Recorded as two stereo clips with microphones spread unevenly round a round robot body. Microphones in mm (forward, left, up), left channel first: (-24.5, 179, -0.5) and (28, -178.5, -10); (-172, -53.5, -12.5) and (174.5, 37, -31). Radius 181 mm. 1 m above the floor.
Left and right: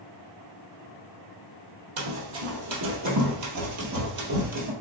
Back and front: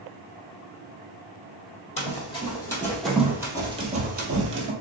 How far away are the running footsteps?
About 1.7 m.